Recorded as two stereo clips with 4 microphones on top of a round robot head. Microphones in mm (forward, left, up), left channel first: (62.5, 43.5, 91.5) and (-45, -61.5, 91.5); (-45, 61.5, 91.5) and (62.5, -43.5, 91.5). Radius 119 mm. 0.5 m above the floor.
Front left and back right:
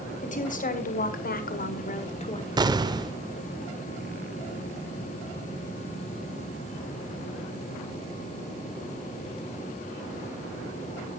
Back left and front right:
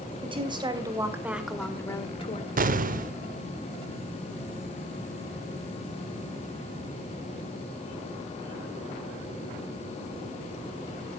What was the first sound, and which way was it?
A woman speaking, 10° left.